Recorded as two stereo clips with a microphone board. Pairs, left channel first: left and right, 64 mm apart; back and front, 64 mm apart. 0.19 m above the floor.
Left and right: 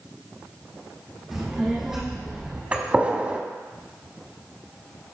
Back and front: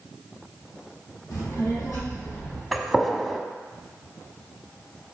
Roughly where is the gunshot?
Right.